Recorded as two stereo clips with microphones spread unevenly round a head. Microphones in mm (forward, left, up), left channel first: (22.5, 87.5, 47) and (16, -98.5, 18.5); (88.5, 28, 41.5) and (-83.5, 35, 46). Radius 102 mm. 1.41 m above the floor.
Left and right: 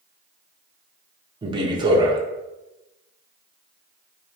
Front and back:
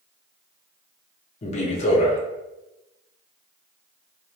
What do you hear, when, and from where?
1.4 s a man speaking: 40° right, 0.5 m